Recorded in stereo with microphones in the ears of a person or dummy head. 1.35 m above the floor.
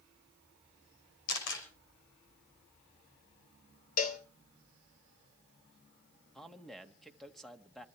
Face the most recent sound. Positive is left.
turn(degrees=0)  # may be behind; listen again after turning